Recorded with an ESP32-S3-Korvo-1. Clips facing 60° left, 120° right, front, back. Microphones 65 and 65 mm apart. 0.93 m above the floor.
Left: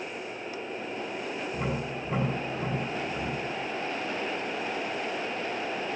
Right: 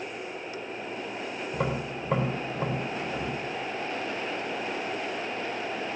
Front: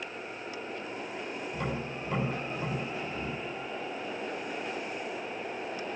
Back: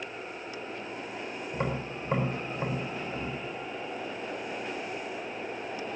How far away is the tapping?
About 4 m.